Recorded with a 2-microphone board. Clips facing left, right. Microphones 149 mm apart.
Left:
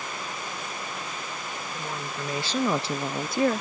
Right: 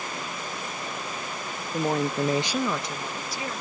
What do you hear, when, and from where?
1.7 s a woman speaking: 70° right (ahead or behind); by 3.6 s 60° left (ahead or behind)